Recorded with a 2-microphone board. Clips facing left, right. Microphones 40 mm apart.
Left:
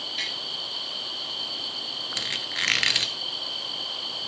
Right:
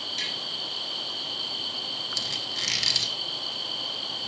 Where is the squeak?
40° left (ahead or behind), 0.7 m.